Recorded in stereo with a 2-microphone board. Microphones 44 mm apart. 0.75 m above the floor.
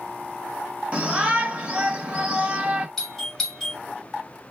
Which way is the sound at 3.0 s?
5° left (ahead or behind).